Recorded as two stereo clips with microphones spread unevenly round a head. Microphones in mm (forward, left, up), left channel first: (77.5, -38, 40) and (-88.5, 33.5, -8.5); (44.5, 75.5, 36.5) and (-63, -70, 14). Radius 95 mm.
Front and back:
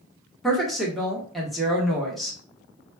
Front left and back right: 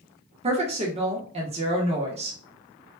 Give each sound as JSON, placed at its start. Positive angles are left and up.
{"t": 0.4, "sound": "a woman speaking", "azimuth_deg": -130, "distance_m": 1.0}